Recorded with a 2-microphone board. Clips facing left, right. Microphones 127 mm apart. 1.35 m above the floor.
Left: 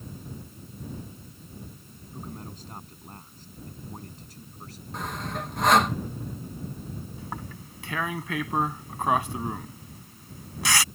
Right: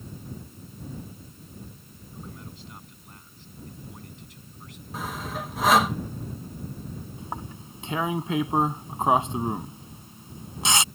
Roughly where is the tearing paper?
Right.